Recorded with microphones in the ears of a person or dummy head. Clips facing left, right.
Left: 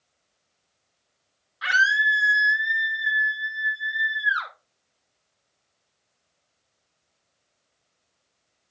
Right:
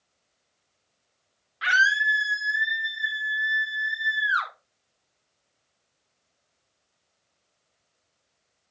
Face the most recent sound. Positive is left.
turn(degrees=-65)  # may be behind; listen again after turning